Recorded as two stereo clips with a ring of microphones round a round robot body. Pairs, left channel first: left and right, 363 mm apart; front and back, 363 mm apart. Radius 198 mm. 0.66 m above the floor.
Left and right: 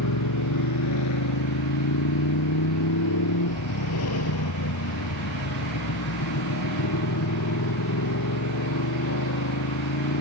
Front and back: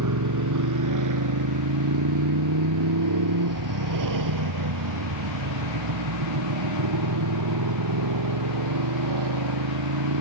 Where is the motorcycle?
140° left; by 10.2 s 150° left.